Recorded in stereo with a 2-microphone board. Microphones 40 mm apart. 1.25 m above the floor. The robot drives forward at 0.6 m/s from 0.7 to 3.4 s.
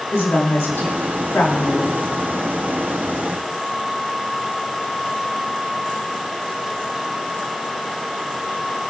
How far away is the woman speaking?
About 2.5 m.